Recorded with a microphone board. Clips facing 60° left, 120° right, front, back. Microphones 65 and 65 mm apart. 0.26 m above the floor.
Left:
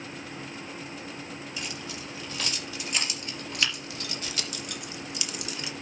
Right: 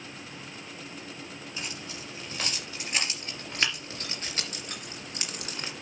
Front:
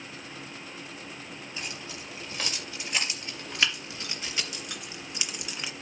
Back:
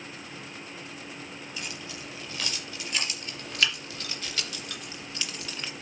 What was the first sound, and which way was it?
Keys jangling, 60° right.